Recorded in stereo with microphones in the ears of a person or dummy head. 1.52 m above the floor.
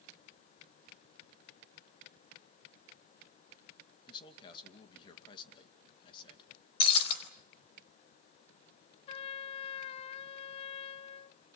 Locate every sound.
4.1 s a man speaking: 25° left (ahead or behind), 2.5 m
6.8 s breaking glass: 30° left (ahead or behind), 4 m
9.1 s a trumpet: 30° left (ahead or behind), 0.6 m